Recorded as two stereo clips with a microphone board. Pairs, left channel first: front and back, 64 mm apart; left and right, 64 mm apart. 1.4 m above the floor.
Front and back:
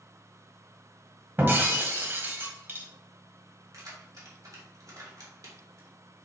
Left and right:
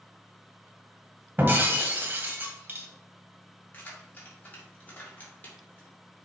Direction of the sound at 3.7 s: 150° left.